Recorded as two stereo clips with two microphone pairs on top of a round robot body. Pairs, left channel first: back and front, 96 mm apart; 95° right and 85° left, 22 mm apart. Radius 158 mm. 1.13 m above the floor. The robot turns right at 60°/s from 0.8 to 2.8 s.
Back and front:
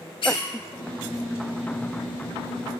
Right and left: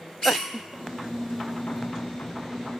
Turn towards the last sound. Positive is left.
turn(degrees=-25)